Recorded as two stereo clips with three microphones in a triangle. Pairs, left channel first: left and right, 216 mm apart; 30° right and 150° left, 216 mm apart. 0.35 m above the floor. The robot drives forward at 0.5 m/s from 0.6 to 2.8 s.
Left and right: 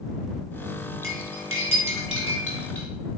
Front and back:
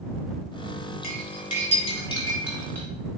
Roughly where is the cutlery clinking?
Right.